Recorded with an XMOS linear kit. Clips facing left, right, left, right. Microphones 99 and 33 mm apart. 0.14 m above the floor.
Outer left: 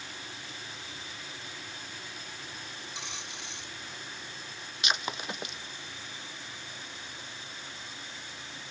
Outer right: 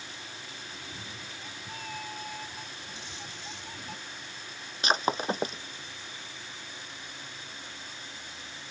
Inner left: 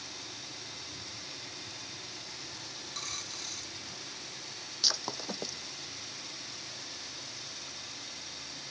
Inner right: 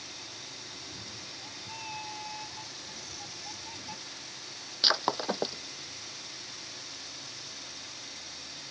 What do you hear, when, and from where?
0.7 s a cat meowing: 90° right; by 4.0 s 75° right (ahead or behind)
3.0 s a dropped coin: 65° left (ahead or behind)
4.8 s breaking glass: 40° right (ahead or behind)